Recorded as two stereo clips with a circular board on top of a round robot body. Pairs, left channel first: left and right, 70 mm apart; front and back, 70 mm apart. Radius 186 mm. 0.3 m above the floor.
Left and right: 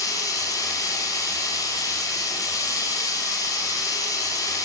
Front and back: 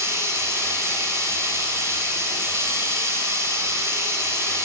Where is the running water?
130° left, 7.5 m.